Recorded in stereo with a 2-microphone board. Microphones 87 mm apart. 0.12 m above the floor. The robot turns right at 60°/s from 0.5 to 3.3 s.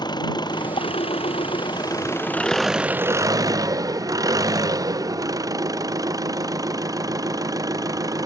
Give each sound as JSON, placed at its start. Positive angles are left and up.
{"t": 0.0, "sound": "an engine running", "azimuth_deg": 55}